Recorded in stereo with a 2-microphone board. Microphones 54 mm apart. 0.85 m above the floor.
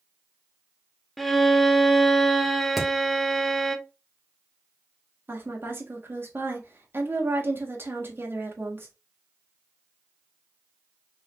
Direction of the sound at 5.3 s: 45° right (ahead or behind).